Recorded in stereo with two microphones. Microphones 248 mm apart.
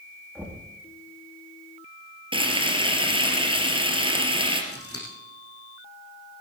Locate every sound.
0.3 s knocking: 5° right (ahead or behind), 6 m
2.3 s frying: 20° right (ahead or behind), 3 m
4.7 s scissors: 65° left (ahead or behind), 6.5 m